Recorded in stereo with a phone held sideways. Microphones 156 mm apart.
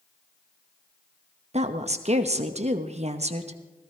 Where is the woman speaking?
45° right (ahead or behind), 0.9 m.